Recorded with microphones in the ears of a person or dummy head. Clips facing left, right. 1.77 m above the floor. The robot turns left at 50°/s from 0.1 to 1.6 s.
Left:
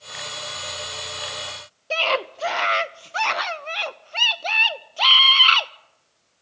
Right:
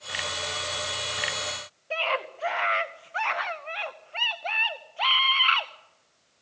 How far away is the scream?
About 0.8 m.